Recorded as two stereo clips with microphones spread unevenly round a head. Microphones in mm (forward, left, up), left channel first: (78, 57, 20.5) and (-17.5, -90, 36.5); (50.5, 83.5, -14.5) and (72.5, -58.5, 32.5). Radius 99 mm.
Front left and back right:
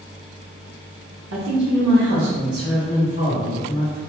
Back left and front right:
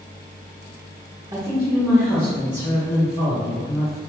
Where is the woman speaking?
145° right, 0.7 m; by 4.0 s 170° left, 2.0 m.